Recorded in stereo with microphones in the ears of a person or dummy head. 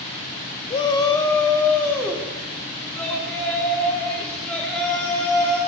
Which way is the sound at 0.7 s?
20° left (ahead or behind).